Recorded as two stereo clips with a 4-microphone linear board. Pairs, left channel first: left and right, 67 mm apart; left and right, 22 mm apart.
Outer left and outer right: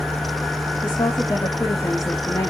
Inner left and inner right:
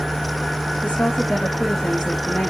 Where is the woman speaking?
75° left (ahead or behind), 1.6 m; by 2.5 s 45° left (ahead or behind), 1.7 m.